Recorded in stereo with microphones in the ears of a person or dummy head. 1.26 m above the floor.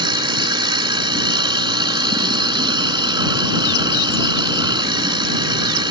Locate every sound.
0.0 s a machine running: 25° right (ahead or behind)